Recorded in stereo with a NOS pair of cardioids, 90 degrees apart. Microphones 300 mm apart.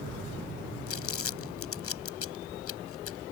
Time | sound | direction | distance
0.9 | crumpling | 50° left | ?